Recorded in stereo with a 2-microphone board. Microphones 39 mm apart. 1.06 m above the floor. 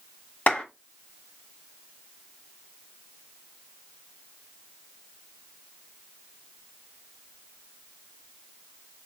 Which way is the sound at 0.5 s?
45° left (ahead or behind).